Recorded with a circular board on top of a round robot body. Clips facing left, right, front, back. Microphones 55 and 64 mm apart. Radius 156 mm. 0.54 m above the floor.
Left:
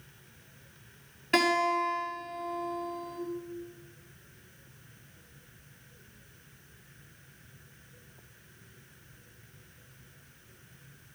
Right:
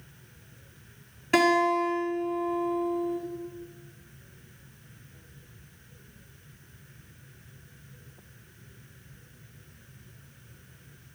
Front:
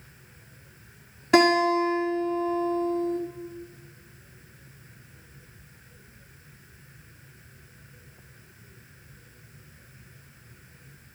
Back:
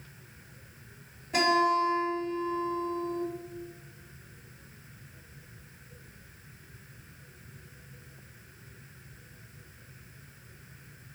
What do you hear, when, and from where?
1.3 s a guitar: straight ahead, 5.5 m